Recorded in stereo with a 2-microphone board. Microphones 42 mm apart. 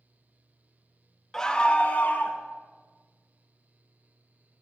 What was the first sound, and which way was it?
A scream, 10° left (ahead or behind).